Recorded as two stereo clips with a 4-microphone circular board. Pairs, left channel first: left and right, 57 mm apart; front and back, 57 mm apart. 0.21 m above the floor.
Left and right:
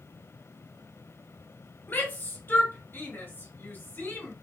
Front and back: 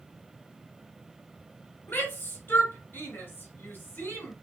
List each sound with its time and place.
1.9 s a shout: 40° left, 3 m